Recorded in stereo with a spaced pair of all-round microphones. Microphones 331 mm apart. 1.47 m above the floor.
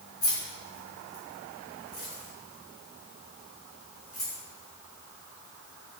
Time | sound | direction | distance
0.2 | keys jangling | 65° left (ahead or behind) | 2.5 m